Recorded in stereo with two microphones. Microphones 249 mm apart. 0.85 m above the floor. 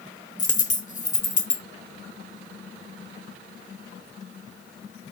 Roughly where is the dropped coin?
Left.